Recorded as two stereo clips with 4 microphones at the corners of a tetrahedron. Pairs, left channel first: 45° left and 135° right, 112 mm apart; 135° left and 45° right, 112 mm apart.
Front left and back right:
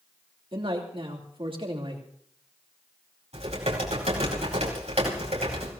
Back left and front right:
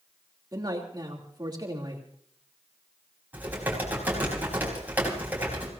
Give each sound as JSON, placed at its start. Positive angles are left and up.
{"t": 0.5, "sound": "a man speaking", "azimuth_deg": -95, "distance_m": 3.0}
{"t": 3.3, "sound": "typing on a keyboard", "azimuth_deg": -120, "distance_m": 4.5}